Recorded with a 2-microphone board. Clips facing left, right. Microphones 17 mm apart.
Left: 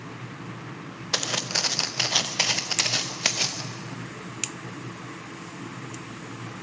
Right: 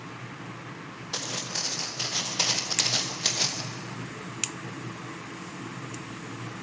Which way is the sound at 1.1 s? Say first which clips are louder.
Left 6 dB; 75° left (ahead or behind).